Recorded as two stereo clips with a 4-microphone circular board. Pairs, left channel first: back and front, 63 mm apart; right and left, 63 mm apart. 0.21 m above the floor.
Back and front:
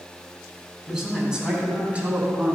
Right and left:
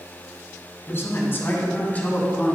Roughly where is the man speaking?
Right.